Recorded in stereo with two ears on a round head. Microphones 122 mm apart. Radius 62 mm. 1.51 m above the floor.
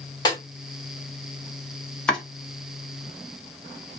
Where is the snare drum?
30° left (ahead or behind), 1.4 m.